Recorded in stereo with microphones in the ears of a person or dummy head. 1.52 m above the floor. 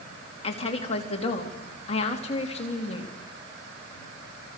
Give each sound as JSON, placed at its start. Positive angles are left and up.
{"t": 0.4, "sound": "a woman speaking", "side_deg": 40, "distance_m": 3.0}